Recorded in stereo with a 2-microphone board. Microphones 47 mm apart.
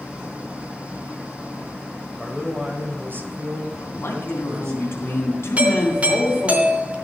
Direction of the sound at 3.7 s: 60° left (ahead or behind).